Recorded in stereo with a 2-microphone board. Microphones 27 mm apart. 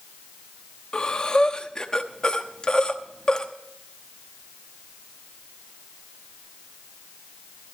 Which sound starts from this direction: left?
Breathing, at 0.9 s.